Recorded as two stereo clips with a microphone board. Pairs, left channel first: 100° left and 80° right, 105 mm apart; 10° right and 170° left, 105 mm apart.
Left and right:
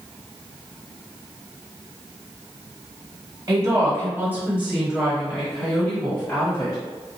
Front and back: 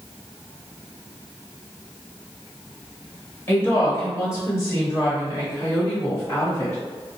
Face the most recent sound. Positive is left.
turn(degrees=45)